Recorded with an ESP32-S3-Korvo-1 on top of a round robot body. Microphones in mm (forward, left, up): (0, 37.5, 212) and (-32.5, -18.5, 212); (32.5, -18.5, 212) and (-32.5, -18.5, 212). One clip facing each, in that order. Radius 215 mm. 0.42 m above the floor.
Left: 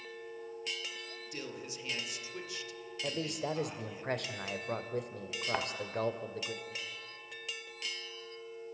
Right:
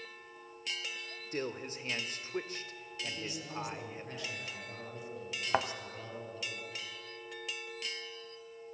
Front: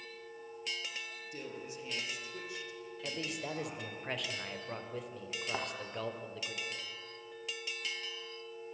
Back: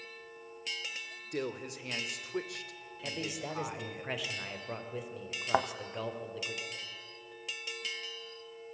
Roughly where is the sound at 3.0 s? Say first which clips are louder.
Left 7 dB, back 2 dB; left.